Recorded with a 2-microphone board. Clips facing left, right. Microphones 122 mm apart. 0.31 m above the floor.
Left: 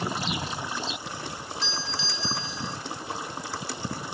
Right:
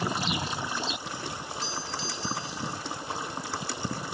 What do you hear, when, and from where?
1.6 s a doorbell: 45° right (ahead or behind)